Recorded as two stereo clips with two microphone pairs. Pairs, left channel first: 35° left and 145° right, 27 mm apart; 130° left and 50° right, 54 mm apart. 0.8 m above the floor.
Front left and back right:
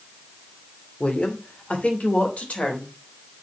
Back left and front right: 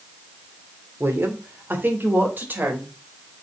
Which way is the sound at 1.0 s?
10° right.